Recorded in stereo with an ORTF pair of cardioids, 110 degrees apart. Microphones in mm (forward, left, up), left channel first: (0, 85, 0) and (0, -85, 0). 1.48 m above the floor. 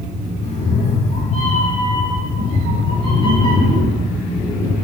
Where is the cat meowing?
50° left, 4 m; by 4.7 s 25° left, 7 m.